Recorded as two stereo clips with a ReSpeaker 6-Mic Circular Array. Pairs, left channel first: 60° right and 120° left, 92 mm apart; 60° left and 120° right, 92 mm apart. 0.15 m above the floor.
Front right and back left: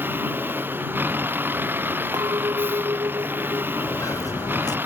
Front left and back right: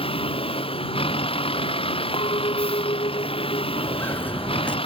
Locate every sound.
0.0 s a vehicle: 50° left
2.1 s a clink: 75° left
3.8 s footsteps: 5° right; by 4.8 s 15° right